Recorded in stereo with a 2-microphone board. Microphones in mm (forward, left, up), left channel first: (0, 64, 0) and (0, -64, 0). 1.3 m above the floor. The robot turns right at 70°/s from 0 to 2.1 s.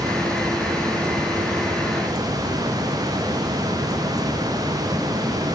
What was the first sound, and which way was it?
Only background noise.